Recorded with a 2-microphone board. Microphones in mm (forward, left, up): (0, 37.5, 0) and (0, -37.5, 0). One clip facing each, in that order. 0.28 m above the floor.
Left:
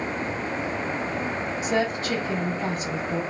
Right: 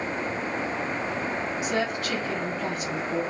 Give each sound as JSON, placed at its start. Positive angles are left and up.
{"t": 1.6, "sound": "a woman speaking", "side_deg": 30, "distance_m": 1.6}